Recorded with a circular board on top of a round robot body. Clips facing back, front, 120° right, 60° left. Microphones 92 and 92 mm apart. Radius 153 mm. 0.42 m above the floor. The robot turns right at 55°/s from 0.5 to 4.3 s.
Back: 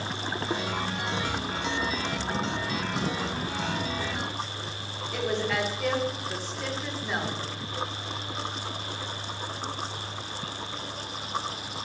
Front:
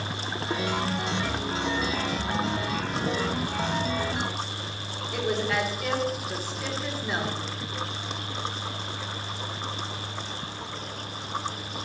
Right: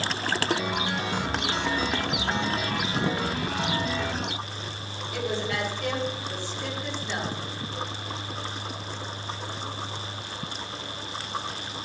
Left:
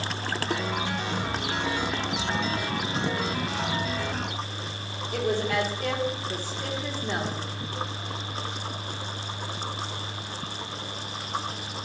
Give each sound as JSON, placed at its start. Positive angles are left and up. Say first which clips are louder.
{"t": 5.1, "sound": "a woman speaking", "louder": "front 1 dB, left 4 dB", "azimuth_deg": 85, "distance_m": 1.6}